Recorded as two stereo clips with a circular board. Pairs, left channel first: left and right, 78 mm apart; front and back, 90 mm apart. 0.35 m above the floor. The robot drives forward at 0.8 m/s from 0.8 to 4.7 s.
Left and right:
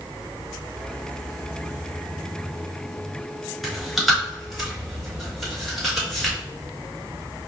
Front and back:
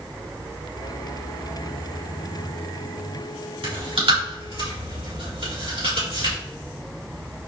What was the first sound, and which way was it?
Chewing, straight behind.